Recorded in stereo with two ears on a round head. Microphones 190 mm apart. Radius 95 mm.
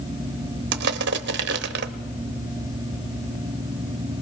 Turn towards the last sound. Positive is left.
turn(degrees=-55)  # may be behind; listen again after turning